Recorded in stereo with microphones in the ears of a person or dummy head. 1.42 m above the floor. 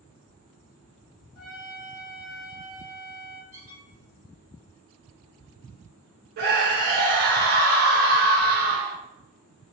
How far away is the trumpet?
About 1.8 m.